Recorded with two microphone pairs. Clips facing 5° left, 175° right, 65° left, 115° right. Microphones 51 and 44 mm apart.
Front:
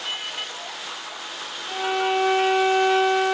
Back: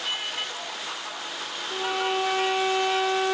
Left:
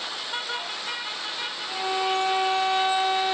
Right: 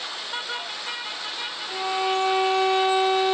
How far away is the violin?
About 1.5 m.